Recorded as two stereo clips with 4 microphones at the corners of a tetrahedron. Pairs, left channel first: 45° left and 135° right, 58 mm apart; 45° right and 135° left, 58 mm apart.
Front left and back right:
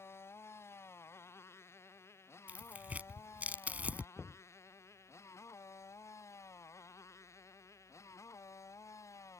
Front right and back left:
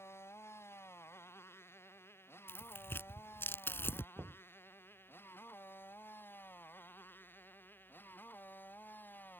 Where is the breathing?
I don't hear breathing.